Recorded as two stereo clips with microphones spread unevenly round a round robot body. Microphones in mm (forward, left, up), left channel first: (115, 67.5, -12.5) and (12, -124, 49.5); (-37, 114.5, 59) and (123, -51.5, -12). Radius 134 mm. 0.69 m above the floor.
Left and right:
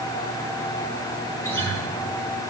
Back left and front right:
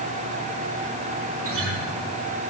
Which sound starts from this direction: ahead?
A guitar, at 1.4 s.